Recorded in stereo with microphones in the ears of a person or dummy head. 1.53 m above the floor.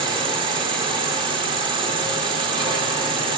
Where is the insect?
25° right (ahead or behind), 0.8 m.